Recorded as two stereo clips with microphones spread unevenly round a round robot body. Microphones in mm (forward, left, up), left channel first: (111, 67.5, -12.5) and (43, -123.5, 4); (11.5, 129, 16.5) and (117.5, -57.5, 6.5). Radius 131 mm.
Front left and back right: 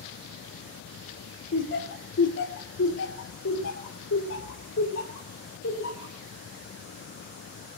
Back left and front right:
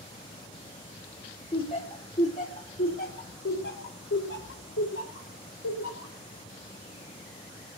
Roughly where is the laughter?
Ahead left.